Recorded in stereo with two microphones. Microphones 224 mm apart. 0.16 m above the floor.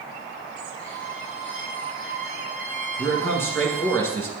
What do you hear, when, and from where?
0.8 s a violin: 55° left (ahead or behind), 2.5 m
3.0 s a man speaking: 10° left (ahead or behind), 1.4 m